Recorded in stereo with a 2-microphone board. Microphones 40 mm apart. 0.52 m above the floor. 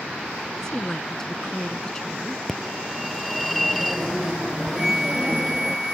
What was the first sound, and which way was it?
A woman speaking, 15° left (ahead or behind).